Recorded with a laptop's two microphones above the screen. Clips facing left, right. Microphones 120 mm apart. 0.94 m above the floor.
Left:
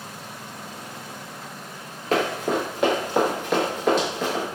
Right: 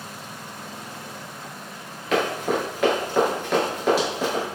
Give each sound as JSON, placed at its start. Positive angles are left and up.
{"t": 2.1, "sound": "running footsteps", "side_deg": 35, "distance_m": 1.1}